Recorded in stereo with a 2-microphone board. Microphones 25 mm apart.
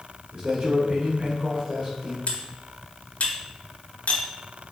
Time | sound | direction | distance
0.3 | a man speaking | 45° right (ahead or behind) | 1.4 m
2.3 | cutlery clinking | 75° left (ahead or behind) | 0.8 m